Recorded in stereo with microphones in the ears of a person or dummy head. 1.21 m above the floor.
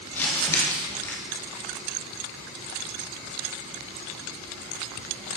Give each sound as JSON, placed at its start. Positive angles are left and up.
{"t": 0.1, "sound": "crumpling", "side_deg": 15, "distance_m": 1.7}